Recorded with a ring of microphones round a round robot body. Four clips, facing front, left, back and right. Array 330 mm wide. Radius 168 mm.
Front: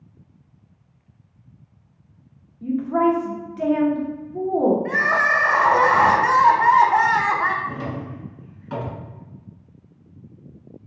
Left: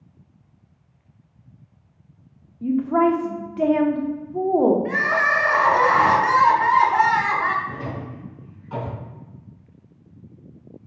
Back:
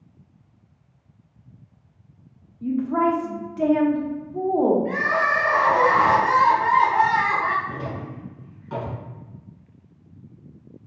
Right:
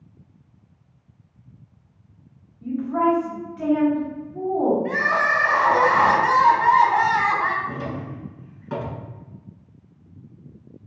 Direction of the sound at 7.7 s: 80° right.